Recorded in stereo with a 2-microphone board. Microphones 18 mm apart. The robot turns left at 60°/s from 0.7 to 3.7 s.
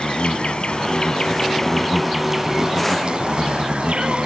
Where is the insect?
80° left, 1.0 m; by 4.3 s 100° right, 1.0 m.